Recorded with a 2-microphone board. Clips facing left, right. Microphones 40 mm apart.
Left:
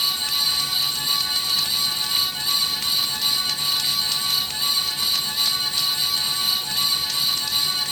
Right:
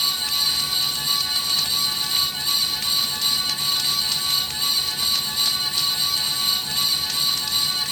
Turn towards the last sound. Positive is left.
No sound to turn to.